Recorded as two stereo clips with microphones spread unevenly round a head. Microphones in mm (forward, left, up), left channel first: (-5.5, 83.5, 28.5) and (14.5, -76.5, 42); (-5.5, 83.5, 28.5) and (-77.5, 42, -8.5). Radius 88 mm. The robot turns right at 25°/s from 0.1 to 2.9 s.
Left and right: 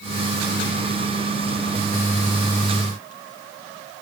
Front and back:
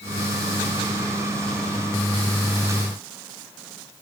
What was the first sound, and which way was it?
Only background noise.